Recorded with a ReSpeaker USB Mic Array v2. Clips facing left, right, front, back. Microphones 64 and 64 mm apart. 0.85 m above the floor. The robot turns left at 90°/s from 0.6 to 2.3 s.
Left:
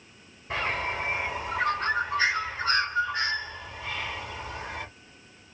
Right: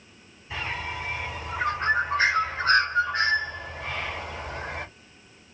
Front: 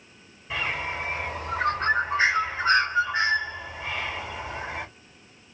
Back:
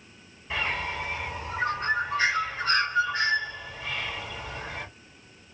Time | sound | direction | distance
0.5 | a bird | 85° left | 1.7 m